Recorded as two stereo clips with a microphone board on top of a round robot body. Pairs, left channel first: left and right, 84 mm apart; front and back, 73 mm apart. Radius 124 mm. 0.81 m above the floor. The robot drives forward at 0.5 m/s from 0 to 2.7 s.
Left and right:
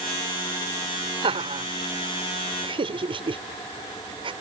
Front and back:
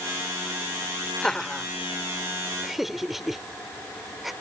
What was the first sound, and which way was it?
Laughter, 85° right.